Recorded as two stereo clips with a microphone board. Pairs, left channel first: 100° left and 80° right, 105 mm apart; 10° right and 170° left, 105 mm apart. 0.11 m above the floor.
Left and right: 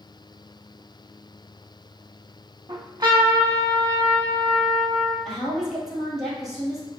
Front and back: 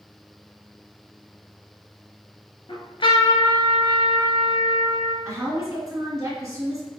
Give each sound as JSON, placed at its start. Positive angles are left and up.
{"t": 2.7, "sound": "a trumpet", "azimuth_deg": -35, "distance_m": 0.9}
{"t": 5.2, "sound": "a woman speaking", "azimuth_deg": -165, "distance_m": 1.8}